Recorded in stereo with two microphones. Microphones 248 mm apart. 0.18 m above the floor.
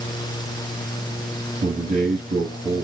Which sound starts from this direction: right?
A man speaking, at 1.6 s.